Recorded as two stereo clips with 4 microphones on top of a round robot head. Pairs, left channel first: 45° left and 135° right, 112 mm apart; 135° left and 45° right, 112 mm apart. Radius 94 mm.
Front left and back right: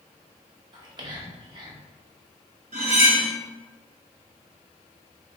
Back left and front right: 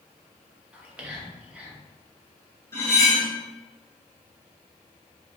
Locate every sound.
0.7 s whispering: 120° right, 1.0 m
2.7 s cutlery clinking: 160° right, 1.4 m